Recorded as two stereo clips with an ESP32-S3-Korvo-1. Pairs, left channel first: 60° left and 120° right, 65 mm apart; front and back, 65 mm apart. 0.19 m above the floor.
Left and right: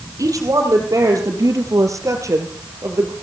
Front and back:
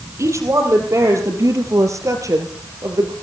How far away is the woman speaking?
About 5 m.